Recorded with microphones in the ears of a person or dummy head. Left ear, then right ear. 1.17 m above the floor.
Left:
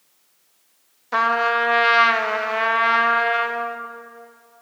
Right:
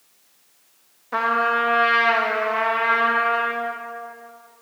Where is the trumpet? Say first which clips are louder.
Left 1 dB; 30° left (ahead or behind), 0.7 m.